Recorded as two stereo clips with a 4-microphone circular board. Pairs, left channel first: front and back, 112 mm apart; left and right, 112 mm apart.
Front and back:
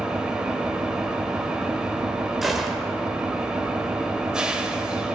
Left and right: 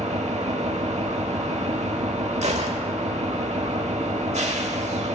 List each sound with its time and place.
0.0 s an engine running: 95° right, 0.9 m
2.4 s a gunshot: 90° right, 0.9 m